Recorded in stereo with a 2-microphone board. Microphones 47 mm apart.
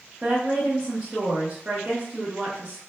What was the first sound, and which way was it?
A woman speaking, 25° right (ahead or behind).